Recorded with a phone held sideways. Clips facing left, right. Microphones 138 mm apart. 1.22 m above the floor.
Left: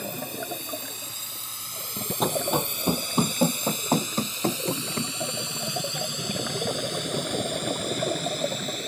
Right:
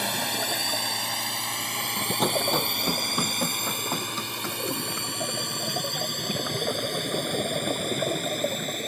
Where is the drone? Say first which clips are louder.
Right 3 dB; 80° right; by 8.9 s 50° right (ahead or behind).